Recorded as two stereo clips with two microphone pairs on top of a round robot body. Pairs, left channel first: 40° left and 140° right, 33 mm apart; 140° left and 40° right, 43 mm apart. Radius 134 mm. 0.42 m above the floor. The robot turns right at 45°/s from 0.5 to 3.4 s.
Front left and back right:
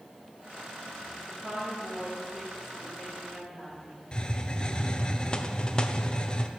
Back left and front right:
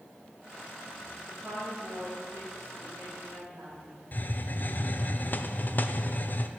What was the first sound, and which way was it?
A woman speaking, 115° right.